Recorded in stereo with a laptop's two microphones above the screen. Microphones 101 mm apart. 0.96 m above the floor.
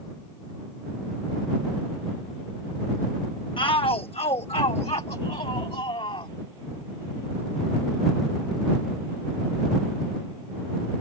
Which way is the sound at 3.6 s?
55° left (ahead or behind).